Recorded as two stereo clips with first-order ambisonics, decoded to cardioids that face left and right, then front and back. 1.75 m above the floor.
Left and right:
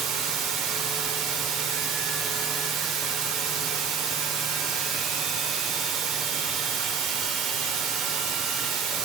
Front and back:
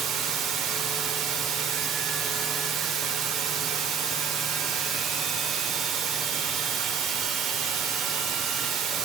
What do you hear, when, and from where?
0.0 s running water: 130° right, 0.9 m